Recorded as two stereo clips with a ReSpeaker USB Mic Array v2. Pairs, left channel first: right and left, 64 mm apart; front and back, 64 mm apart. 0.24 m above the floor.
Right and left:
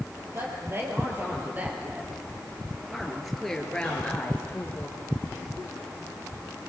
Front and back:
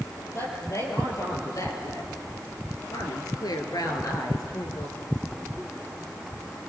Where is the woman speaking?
45° left, 5 m; by 5.0 s 30° right, 4 m.